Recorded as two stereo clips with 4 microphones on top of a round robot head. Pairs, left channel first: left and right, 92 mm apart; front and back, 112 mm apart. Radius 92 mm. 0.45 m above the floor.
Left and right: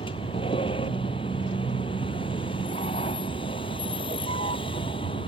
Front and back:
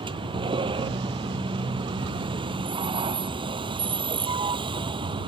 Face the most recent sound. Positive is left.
turn(degrees=135)